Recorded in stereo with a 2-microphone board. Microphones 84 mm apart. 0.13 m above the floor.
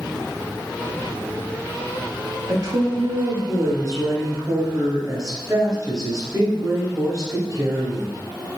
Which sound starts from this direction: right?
A woman speaking, at 2.5 s.